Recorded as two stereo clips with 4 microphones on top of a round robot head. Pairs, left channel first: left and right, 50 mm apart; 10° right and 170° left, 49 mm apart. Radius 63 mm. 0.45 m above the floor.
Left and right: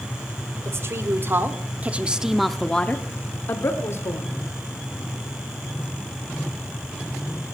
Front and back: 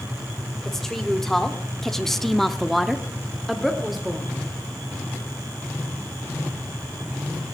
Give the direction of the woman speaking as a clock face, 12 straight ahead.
3 o'clock.